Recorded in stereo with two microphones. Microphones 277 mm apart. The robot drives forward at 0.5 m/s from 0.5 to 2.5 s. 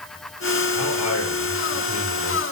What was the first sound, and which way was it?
A man speaking, 60° left (ahead or behind).